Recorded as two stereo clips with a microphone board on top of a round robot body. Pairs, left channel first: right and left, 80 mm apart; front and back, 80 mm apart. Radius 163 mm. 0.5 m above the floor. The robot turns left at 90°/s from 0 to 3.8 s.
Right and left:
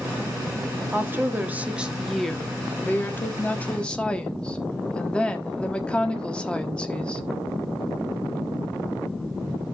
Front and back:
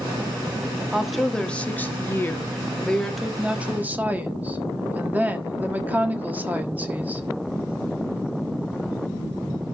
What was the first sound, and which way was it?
A woman speaking, 110° left.